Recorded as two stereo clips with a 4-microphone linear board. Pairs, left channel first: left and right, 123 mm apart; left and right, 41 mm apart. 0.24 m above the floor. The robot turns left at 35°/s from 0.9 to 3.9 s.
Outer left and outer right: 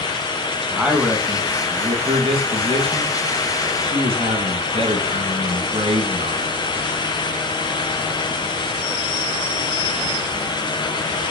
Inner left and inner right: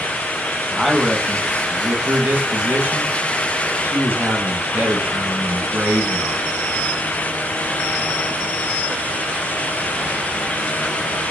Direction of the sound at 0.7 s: 10° right.